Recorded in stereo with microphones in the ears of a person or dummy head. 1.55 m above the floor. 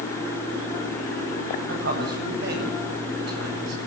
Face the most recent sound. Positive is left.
turn(degrees=-60)  # may be behind; listen again after turning